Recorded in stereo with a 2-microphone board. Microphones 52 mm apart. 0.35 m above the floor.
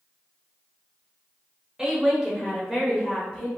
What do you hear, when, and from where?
1.8 s a woman speaking: 15° right (ahead or behind), 1.2 m; by 3.5 s 5° left (ahead or behind), 1.6 m